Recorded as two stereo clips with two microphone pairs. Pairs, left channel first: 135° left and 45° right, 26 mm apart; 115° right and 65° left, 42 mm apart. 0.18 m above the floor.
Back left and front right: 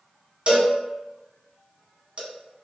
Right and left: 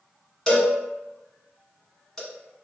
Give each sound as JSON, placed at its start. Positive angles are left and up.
{"t": 0.5, "sound": "a cowbell", "azimuth_deg": -45, "distance_m": 0.9}